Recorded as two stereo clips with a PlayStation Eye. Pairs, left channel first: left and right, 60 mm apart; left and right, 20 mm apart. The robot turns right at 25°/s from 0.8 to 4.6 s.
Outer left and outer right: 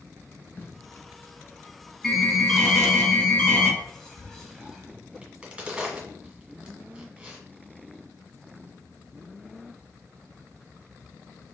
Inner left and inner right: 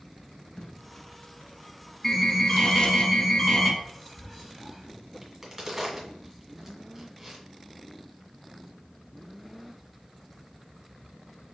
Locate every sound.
0.6 s tape being pulled: 30° left (ahead or behind), 0.9 m; by 3.0 s 50° left (ahead or behind), 0.9 m
2.0 s an alarm: 10° right, 1.3 m; by 3.7 s 30° left, 1.3 m
3.8 s whispering: 15° left (ahead or behind), 1.5 m; by 5.0 s centre (ahead or behind), 1.5 m
5.2 s a crack: 15° right (ahead or behind), 1.6 m